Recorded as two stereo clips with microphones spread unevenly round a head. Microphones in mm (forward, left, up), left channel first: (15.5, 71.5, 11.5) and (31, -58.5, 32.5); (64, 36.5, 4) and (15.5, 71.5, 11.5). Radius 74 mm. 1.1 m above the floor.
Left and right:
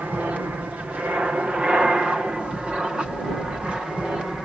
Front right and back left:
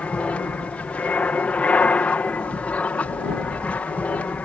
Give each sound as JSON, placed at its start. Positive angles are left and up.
{"t": 0.0, "sound": "an aircraft", "azimuth_deg": -5}